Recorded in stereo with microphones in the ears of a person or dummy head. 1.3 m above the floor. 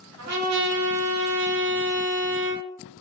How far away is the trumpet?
About 0.8 m.